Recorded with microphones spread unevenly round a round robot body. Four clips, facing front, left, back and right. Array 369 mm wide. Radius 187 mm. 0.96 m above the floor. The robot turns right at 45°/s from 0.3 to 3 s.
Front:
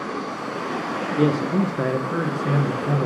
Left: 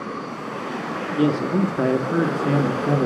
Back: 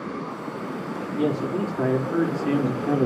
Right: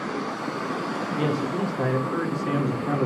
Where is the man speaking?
45° left, 1.8 m; by 3.1 s 125° left, 1.8 m.